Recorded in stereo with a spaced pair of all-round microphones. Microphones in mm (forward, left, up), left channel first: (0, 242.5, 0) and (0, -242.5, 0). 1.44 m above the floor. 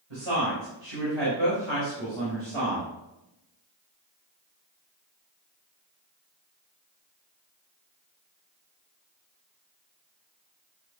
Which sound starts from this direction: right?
A woman speaking, at 0.1 s.